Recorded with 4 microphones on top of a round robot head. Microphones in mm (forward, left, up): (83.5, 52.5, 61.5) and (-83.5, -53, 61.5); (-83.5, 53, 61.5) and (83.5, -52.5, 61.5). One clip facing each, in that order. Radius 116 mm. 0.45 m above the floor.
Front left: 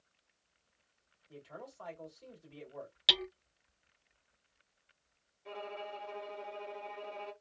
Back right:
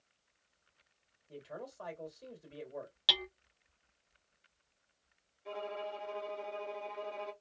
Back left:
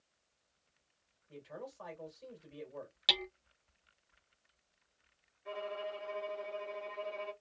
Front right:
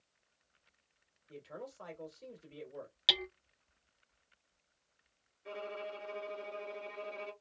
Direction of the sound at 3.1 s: 45° left.